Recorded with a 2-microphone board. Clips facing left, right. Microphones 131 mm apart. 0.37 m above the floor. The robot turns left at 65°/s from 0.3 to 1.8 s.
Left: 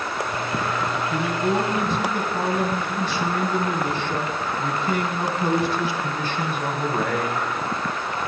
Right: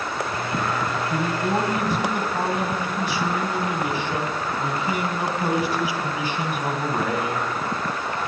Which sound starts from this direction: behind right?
A man speaking, at 1.1 s.